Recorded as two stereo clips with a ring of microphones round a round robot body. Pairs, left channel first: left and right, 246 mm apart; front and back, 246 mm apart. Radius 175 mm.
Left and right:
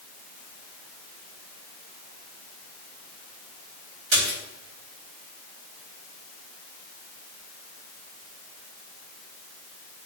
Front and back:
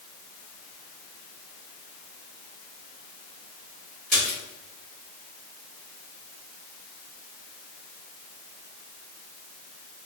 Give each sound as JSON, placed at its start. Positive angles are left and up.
{"t": 4.1, "sound": "a splash", "azimuth_deg": -120, "distance_m": 2.0}